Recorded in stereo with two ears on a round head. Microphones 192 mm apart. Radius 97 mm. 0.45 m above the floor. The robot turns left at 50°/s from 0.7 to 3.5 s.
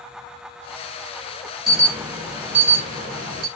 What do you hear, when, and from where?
1.7 s an alarm: straight ahead, 1.4 m; by 3.5 s 90° right, 1.4 m